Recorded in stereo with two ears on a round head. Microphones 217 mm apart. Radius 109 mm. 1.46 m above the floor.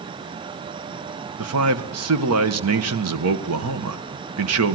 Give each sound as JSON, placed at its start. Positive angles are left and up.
{"t": 1.4, "sound": "a man speaking", "side_deg": -70, "distance_m": 1.5}